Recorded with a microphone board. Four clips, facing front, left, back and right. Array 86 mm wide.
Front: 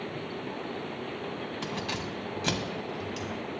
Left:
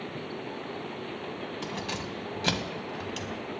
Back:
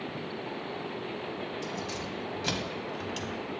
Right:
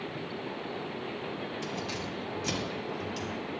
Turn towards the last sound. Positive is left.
turn(degrees=125)